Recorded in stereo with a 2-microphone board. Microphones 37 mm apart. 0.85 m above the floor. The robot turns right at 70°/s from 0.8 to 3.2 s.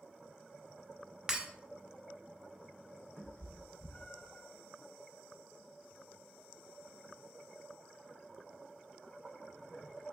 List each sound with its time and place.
1.3 s breaking glass: 20° right (ahead or behind), 1.5 m; by 1.5 s 30° right (ahead or behind), 1.5 m
3.2 s a cat meowing: 60° left (ahead or behind), 3.5 m; by 4.5 s 65° left (ahead or behind), 3.5 m